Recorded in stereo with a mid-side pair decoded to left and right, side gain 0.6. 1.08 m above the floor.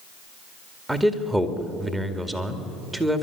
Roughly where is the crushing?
No crushing in this recording.